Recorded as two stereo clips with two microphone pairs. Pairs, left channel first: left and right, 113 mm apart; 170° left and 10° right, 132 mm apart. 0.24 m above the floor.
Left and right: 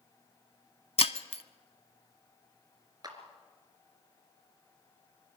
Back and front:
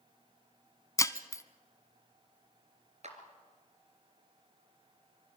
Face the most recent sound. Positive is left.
turn(degrees=-40)